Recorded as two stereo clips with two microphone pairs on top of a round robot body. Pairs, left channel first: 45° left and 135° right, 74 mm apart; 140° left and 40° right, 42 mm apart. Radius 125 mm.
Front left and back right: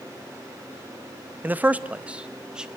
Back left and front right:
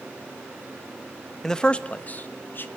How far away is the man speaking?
About 0.9 m.